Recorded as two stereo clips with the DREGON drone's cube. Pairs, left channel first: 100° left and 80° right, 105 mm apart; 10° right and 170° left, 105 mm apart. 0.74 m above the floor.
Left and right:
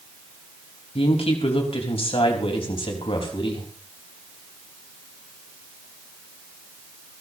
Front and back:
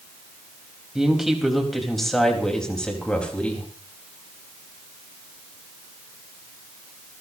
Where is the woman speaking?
85° left, 4 m; by 3.7 s 65° left, 4.5 m.